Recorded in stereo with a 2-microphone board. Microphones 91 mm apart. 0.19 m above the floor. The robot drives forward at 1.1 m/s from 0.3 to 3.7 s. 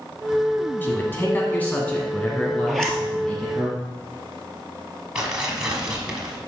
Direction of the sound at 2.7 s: Centre (ahead or behind).